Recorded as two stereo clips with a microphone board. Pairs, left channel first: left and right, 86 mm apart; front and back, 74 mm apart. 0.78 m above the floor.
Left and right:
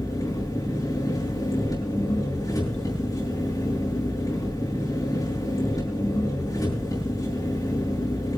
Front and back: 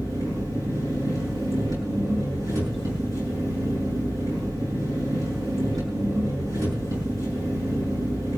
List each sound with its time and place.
0.0 s an engine running: 140° left, 7 m